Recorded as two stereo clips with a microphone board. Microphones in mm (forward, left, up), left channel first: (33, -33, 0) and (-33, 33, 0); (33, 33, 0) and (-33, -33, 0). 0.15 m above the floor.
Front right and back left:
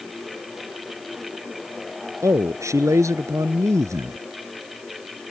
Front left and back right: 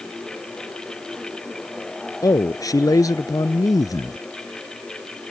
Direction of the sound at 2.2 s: 85° left.